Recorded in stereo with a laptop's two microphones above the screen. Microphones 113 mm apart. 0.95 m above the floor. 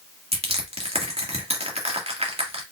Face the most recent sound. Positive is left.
turn(degrees=-75)  # may be behind; listen again after turning